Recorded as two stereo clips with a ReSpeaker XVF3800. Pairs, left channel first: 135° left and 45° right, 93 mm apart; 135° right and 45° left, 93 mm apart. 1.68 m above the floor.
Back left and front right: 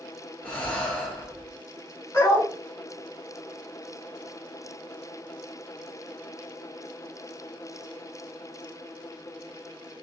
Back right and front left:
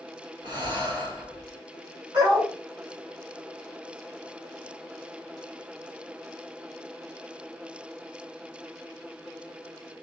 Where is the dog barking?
85° left, 2.5 m.